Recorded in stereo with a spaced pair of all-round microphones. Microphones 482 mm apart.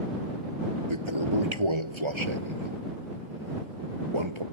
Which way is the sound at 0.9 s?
70° right (ahead or behind).